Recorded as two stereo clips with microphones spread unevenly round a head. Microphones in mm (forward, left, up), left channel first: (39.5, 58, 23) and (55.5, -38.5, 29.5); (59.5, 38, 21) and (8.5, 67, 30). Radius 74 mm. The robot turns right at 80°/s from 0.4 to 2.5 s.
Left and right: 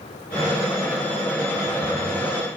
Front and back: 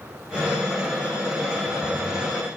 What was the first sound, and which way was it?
Only background noise.